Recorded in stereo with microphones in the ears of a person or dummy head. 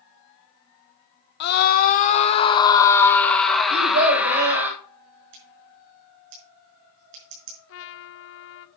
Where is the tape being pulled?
No tape being pulled in this recording.